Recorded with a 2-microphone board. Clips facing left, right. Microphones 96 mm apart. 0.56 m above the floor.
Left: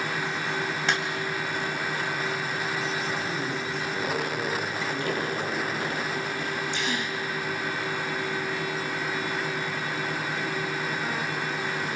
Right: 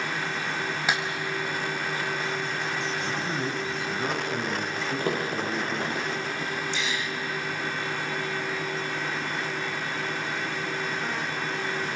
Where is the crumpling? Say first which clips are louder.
Right 2 dB; 40° right (ahead or behind), 9 m.